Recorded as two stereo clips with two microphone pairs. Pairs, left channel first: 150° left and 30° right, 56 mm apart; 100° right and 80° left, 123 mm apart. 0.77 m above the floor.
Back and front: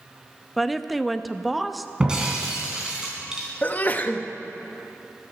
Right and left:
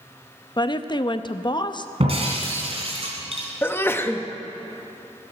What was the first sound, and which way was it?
A woman speaking, 115° right.